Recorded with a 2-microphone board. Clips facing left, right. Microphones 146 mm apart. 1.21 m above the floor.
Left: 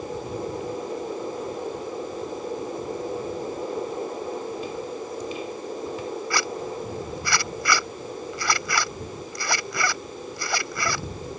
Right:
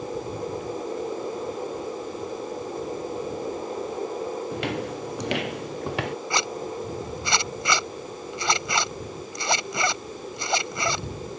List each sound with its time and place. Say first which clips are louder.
4.5 s footsteps: right 2 dB; 85° right
6.3 s a zipper: even; 25° right (ahead or behind)